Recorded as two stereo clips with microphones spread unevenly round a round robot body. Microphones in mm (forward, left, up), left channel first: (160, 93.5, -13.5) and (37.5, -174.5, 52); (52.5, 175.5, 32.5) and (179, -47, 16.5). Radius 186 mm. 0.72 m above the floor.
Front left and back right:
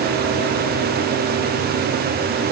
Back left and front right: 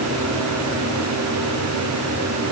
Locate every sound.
Only background noise.